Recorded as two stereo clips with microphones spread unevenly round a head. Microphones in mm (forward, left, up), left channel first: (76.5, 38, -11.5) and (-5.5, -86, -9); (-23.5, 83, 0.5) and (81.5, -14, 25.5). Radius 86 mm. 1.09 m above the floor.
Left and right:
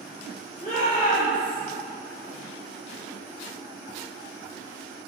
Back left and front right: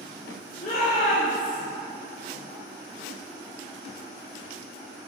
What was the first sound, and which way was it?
A shout, 110° left.